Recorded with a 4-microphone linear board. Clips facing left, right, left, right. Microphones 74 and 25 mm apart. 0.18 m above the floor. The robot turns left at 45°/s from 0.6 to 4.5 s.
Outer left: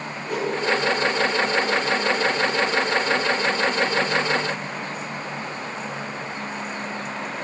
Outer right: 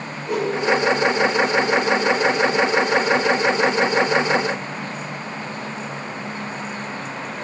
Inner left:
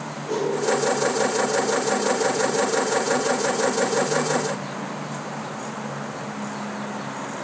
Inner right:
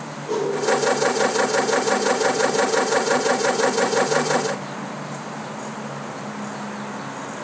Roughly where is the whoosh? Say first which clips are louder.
Outer right 3 dB, inner right 1 dB; centre.